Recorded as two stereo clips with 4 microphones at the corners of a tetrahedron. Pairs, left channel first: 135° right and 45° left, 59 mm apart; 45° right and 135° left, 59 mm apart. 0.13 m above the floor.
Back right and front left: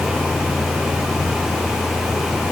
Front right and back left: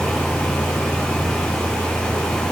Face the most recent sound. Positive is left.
No sound to turn to.